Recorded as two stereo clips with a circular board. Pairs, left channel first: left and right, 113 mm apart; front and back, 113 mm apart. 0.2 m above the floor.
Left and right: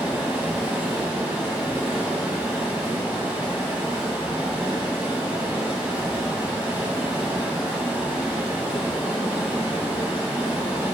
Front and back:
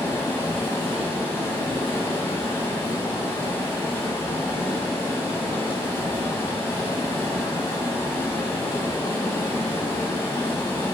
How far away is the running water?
About 1.0 m.